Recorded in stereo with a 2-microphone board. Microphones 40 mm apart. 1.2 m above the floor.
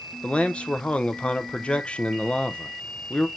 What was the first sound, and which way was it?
A man speaking, 30° left (ahead or behind).